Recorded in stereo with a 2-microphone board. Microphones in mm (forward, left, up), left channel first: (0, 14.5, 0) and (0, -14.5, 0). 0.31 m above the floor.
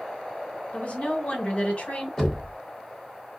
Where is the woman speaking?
40° left (ahead or behind), 1.9 m.